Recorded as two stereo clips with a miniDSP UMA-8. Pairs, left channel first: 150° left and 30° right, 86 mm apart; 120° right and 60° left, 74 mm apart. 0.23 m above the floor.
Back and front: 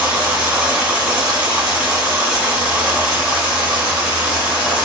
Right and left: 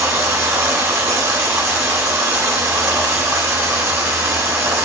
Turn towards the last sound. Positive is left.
turn(degrees=35)